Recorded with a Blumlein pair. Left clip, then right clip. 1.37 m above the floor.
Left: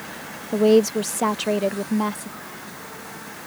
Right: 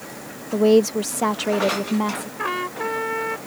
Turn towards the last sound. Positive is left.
turn(degrees=-50)